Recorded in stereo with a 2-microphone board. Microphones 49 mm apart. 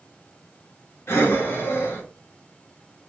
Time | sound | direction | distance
1.1 | breathing | 60° left (ahead or behind) | 1.2 m